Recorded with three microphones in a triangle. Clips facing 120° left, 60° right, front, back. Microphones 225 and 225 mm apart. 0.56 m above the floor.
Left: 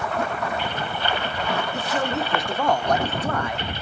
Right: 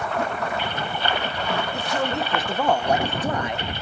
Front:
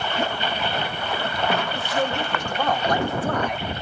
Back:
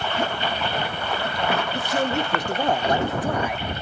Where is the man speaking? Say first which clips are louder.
Even, back 1 dB; 155° right, 1.2 m; by 3.7 s 90° right, 0.7 m.